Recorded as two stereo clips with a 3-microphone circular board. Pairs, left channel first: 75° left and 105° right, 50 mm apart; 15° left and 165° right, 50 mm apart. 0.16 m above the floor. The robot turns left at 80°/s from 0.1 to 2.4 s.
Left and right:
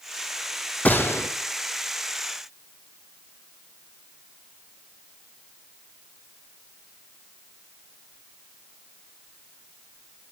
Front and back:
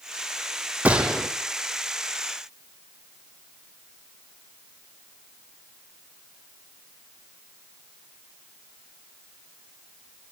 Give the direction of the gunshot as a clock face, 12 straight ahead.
8 o'clock.